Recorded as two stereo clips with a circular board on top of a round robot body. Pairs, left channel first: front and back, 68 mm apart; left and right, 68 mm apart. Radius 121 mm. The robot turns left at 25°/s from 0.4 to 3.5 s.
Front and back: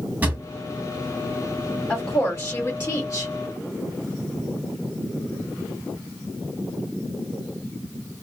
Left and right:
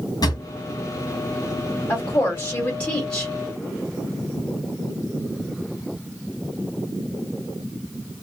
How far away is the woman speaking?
About 1.7 m.